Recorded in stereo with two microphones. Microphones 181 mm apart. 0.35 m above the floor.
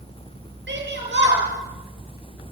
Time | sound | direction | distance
0.7 | a shout | 80° right | 7 m